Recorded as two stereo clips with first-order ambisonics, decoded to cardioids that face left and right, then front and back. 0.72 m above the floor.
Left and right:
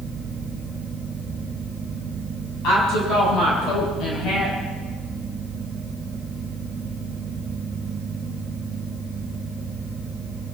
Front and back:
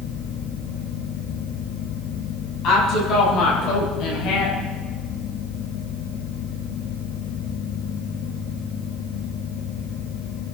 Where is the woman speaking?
45° left, 5.5 m; by 4.6 s 35° left, 4.5 m.